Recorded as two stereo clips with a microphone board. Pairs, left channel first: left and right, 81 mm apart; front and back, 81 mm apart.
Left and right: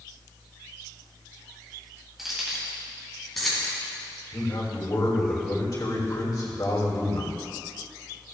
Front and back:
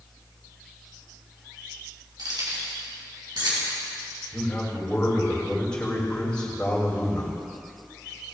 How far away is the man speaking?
About 3 m.